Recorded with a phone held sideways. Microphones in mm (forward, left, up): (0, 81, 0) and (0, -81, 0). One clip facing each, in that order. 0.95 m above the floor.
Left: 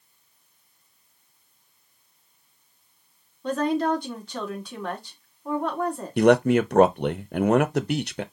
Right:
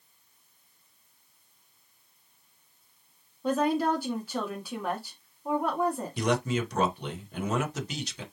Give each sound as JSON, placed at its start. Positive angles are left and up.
{"t": 3.4, "sound": "a woman speaking", "side_deg": -5, "distance_m": 2.0}
{"t": 6.2, "sound": "a man speaking", "side_deg": 55, "distance_m": 0.6}